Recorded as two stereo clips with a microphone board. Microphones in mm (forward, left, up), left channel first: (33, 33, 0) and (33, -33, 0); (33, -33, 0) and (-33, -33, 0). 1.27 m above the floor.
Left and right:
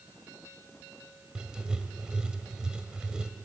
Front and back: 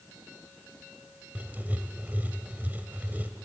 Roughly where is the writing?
Behind.